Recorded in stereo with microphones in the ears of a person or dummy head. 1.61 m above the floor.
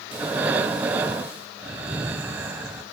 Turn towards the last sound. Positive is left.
turn(degrees=-5)  # may be behind; listen again after turning